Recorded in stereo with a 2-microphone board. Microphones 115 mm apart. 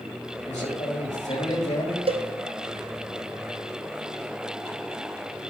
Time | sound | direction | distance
0.5 | a man speaking | 85° left | 4.5 m
2.1 | a cowbell | 55° right (ahead or behind) | 0.6 m